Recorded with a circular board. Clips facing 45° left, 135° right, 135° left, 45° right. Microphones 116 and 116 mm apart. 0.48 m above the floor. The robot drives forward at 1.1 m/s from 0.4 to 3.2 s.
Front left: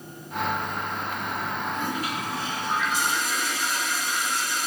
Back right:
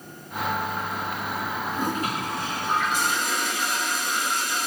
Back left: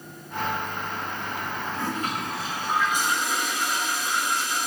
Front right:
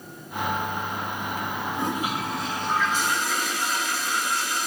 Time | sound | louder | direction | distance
1.7 | a toilet flushing | back right 2 dB, front right 2 dB | 100° right | 1.1 m